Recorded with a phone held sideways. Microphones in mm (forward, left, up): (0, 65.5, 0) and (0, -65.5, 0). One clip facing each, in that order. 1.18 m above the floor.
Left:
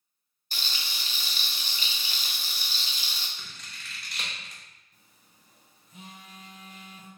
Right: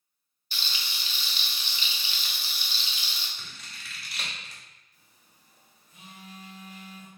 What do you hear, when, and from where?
0.5 s frying: 45° left (ahead or behind), 0.6 m
3.4 s scissors: 5° right (ahead or behind), 0.9 m
4.9 s a phone buzzing: 50° left (ahead or behind), 1.2 m